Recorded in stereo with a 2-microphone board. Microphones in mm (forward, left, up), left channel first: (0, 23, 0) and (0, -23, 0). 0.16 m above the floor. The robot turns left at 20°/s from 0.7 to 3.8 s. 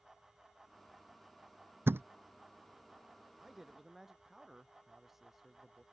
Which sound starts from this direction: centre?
A man speaking, at 3.4 s.